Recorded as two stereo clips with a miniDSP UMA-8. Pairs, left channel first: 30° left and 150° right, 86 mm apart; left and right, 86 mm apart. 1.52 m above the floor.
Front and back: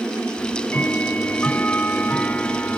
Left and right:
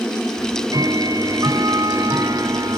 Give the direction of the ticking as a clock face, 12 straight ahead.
1 o'clock.